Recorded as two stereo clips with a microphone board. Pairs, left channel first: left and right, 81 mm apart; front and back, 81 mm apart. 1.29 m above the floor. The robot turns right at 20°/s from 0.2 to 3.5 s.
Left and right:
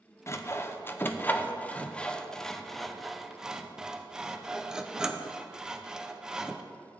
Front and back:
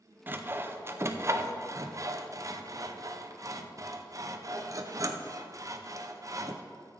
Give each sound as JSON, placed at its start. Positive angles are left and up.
{"t": 0.3, "sound": "sawing", "azimuth_deg": 130, "distance_m": 0.6}